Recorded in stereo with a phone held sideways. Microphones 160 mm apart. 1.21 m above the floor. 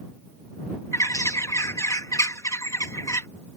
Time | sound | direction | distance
0.9 | a bird | 20° left (ahead or behind) | ?